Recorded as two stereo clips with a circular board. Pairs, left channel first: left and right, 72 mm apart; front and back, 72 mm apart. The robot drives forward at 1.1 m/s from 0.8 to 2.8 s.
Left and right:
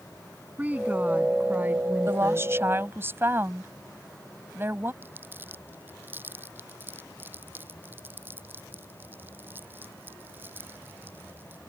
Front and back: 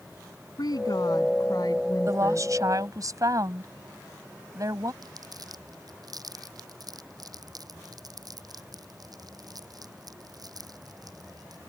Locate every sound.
0.6 s a woman speaking: 20° right; by 2.5 s 30° right
2.1 s a woman speaking: 135° right; by 4.9 s 145° right
5.0 s crumpling: 150° right